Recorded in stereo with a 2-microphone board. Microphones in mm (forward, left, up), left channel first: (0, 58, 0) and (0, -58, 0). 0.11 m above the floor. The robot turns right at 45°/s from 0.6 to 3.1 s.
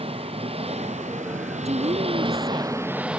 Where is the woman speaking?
105° right; by 3.2 s 40° right.